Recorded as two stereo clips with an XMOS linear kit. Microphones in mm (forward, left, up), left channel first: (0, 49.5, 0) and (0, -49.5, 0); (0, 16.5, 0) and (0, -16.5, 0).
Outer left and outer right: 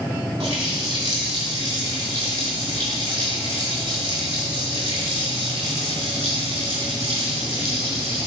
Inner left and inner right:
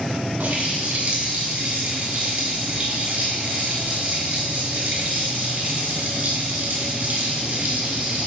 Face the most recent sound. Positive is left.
turn(degrees=-85)